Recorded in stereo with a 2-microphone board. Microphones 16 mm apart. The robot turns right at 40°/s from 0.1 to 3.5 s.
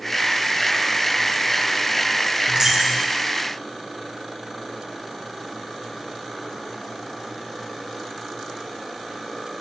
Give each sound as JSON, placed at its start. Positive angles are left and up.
{"t": 2.5, "sound": "a dropped coin", "side_deg": -45, "distance_m": 2.0}